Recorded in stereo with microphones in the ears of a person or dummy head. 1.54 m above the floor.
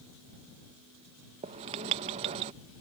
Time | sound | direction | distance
1.4 | writing | 25° right (ahead or behind) | ?